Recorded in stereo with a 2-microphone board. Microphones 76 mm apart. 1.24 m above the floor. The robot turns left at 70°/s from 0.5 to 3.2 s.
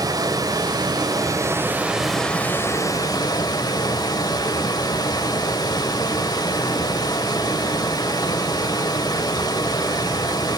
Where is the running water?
70° right, 1.9 m; by 10.6 s 105° left, 1.9 m.